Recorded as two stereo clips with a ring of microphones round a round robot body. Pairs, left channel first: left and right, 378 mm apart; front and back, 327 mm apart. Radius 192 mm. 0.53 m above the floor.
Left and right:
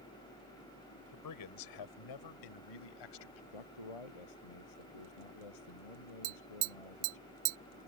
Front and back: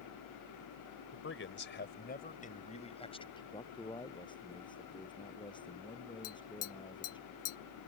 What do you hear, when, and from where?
1.1 s a man speaking: 50° left; by 3.4 s 75° left
3.5 s a man speaking: 75° left
6.2 s tapping: 55° right